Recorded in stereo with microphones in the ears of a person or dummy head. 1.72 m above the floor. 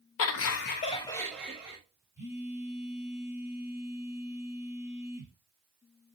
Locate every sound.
0.2 s laughter: 70° left (ahead or behind), 0.6 m; by 1.8 s 5° right (ahead or behind), 1.1 m
2.2 s a phone buzzing: 35° left (ahead or behind), 1.7 m